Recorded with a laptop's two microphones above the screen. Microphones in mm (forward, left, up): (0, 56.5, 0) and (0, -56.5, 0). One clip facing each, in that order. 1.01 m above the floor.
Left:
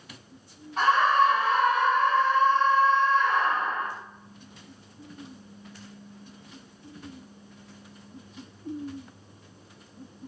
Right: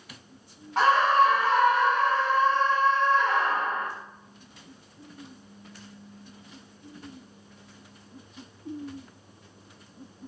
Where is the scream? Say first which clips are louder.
Right 1 dB; 80° right, 1.4 m.